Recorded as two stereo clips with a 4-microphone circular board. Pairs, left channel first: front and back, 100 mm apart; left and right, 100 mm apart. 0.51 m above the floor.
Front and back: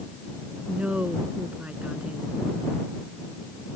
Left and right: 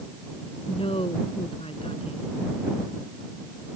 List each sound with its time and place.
0.7 s a woman speaking: 105° left